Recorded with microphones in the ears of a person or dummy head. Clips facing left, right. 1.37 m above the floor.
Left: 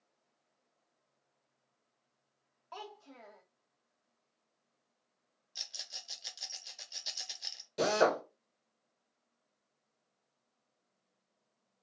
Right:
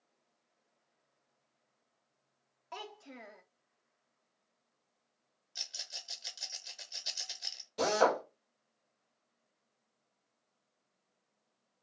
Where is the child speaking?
30° right (ahead or behind), 0.6 m.